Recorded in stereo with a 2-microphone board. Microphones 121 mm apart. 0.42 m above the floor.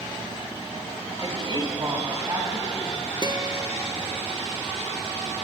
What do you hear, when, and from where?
1.2 s a woman speaking: 40° right (ahead or behind), 1.8 m; by 3.1 s 25° right (ahead or behind), 4 m
3.2 s a guitar: 35° right (ahead or behind), 0.9 m